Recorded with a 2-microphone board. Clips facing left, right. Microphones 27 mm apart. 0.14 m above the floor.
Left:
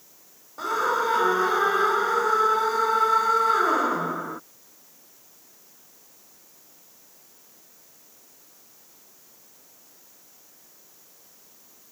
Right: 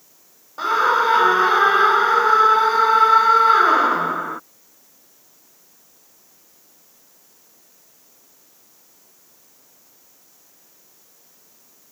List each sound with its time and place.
0.6 s a scream: 40° right (ahead or behind)